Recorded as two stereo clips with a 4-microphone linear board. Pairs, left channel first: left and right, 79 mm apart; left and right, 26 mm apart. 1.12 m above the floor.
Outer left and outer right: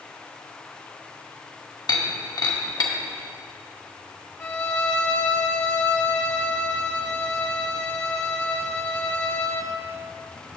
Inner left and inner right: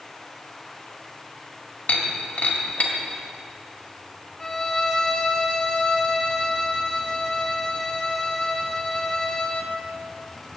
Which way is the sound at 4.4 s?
30° left (ahead or behind).